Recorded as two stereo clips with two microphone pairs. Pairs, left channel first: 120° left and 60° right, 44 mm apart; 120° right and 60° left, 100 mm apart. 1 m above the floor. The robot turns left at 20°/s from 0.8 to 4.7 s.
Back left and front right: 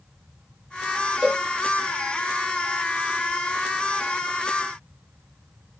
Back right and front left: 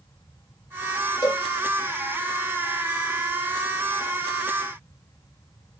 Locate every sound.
1.2 s a cowbell: 125° right, 1.7 m; by 1.4 s 130° right, 1.7 m